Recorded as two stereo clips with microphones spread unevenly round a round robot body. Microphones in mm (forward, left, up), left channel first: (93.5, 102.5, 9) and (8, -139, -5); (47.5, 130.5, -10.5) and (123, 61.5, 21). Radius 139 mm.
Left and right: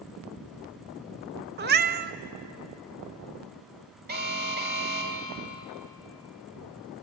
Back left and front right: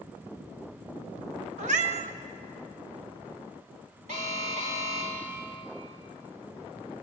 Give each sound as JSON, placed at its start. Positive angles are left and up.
{"t": 1.6, "sound": "a cat meowing", "azimuth_deg": -60, "distance_m": 0.8}
{"t": 4.1, "sound": "an alarm", "azimuth_deg": -65, "distance_m": 3.0}